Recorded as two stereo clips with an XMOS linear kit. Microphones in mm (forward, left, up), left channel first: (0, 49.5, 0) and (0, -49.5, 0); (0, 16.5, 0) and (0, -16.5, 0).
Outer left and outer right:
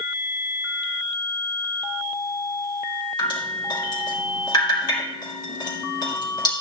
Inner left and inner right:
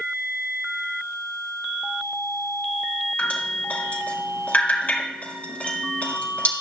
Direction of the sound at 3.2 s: 45° left (ahead or behind).